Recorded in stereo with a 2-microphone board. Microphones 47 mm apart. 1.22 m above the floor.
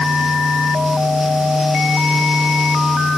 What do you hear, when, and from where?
Only background noise.